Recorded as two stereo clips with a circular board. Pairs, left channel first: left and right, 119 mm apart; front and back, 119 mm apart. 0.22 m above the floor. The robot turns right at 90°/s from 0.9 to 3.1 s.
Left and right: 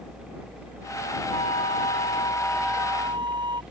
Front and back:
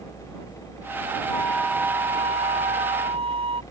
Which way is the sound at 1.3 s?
55° left.